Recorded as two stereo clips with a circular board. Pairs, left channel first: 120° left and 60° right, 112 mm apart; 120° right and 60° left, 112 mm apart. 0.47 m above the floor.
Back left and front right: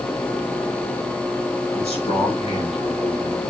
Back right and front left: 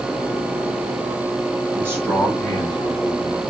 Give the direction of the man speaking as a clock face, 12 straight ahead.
8 o'clock.